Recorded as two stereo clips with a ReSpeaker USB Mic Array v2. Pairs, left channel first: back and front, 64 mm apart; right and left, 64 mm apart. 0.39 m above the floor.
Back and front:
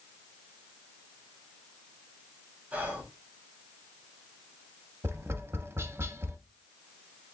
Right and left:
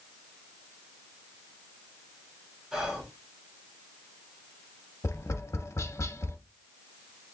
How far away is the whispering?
About 1.2 m.